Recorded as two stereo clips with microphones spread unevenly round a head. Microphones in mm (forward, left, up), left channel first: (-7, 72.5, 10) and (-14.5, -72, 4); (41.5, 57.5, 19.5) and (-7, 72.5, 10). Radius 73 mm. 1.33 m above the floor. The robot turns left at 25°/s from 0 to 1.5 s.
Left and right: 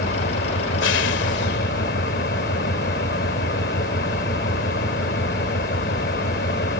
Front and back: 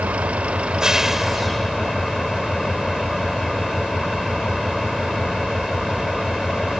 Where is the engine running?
105° left; by 6.8 s 65° left.